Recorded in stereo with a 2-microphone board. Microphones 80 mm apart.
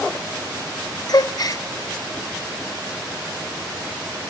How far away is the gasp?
About 0.5 m.